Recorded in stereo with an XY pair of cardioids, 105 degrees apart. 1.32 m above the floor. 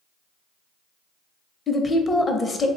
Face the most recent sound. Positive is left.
turn(degrees=30)